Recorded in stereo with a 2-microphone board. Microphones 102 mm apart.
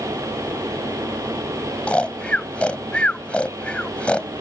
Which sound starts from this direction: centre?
Snoring, at 1.9 s.